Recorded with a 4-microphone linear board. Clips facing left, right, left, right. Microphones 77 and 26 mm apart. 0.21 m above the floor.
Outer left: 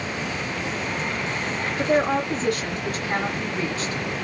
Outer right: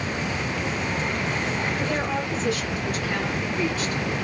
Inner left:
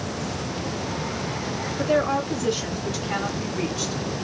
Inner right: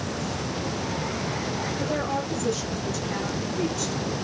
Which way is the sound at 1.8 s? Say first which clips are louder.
Outer left 5 dB, inner left 8 dB; 60° left (ahead or behind).